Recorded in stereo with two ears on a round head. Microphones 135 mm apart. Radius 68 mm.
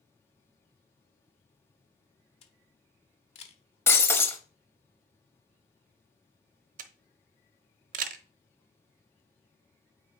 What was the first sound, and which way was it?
A camera shutter, 40° left (ahead or behind).